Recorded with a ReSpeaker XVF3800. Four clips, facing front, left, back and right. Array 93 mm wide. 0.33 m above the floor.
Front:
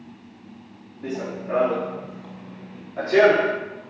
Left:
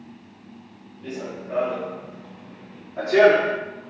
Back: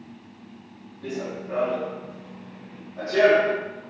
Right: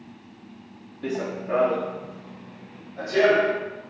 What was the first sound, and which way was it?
Running footsteps, 70° right.